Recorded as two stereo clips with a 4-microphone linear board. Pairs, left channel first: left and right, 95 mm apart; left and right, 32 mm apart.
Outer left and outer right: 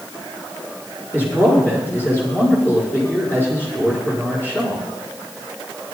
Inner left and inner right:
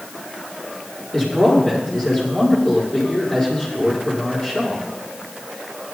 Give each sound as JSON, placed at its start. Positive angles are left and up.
{"t": 1.1, "sound": "a man speaking", "side_deg": 25, "distance_m": 6.0}